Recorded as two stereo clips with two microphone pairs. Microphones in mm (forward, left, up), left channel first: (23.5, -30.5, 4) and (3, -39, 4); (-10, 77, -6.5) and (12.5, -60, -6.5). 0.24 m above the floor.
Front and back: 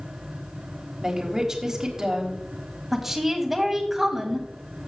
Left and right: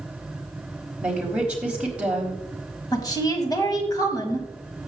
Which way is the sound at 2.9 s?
130° left.